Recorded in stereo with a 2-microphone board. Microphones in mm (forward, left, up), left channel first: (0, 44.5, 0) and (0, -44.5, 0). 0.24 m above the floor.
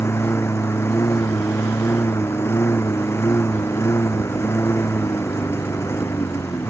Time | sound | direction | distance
0.0 | a lawn mower | 30° left (ahead or behind) | ?